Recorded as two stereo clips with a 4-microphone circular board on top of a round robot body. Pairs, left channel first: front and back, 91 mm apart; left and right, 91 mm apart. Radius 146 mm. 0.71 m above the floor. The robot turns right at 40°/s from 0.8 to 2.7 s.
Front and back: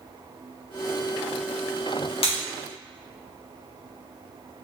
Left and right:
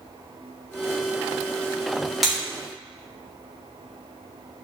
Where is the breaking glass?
5° right, 2.0 m; by 2.4 s 5° left, 2.0 m.